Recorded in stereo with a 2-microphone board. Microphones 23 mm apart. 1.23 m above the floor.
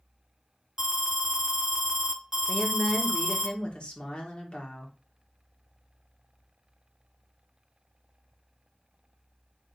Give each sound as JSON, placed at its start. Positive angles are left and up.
{"t": 0.8, "sound": "an alarm", "side_deg": -15, "distance_m": 0.7}
{"t": 2.5, "sound": "a woman speaking", "side_deg": 50, "distance_m": 1.4}